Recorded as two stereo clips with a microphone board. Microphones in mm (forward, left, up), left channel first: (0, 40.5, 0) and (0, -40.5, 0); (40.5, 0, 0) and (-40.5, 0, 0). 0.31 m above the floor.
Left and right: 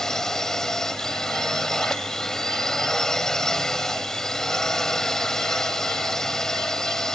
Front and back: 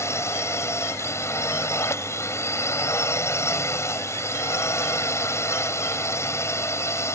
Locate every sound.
0.0 s a drone: 10° left